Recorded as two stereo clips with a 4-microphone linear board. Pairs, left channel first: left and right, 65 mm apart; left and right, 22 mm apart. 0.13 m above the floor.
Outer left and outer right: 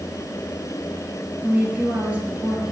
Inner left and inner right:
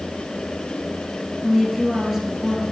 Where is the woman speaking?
20° right (ahead or behind), 2.5 m.